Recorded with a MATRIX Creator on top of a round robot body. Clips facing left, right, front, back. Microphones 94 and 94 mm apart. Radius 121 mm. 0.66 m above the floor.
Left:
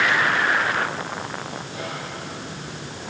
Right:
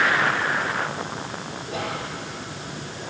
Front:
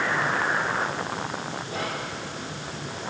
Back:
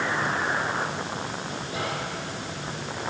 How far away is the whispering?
About 2.0 m.